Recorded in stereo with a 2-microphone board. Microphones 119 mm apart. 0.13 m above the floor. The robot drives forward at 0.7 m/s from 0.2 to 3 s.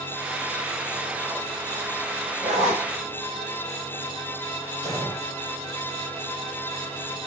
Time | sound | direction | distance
2.4 | a zipper | 75° right (ahead or behind) | 1.1 m
4.8 | an explosion | 45° right (ahead or behind) | 2 m